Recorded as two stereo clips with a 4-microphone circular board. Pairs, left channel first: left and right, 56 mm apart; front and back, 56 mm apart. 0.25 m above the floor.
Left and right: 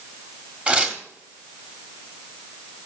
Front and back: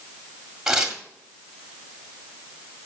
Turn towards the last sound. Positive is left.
turn(degrees=-115)